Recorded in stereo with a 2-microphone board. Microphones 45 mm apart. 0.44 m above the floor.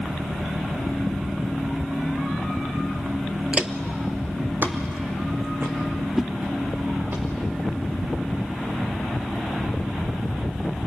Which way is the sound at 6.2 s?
10° right (ahead or behind).